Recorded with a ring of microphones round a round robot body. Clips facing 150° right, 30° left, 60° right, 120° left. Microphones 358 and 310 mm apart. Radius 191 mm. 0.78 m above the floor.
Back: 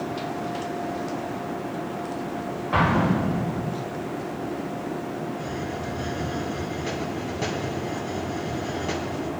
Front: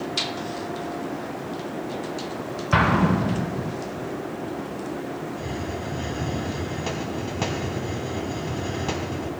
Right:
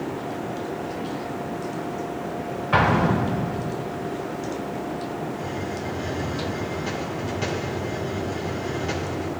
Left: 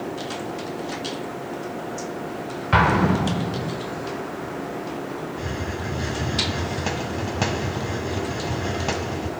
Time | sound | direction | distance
2.7 | an explosion | 70° left | 3 m
5.4 | a hiss | 100° left | 1.9 m